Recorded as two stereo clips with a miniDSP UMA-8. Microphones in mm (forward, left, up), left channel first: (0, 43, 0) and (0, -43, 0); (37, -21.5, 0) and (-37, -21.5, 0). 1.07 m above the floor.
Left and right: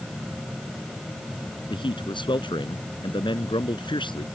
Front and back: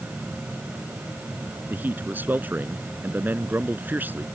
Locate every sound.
1.7 s a man speaking: 115° left